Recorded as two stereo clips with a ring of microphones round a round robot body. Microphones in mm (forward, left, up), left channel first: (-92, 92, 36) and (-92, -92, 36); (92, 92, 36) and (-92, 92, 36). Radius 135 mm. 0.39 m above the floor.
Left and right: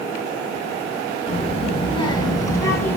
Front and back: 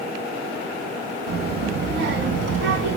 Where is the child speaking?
145° left, 3.5 m; by 3.0 s 170° left, 3.5 m.